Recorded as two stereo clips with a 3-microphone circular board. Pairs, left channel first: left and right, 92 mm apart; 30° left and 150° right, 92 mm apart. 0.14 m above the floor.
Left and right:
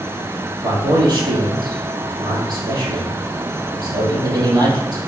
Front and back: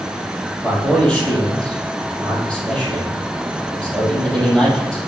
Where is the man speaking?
50° right, 3.5 m.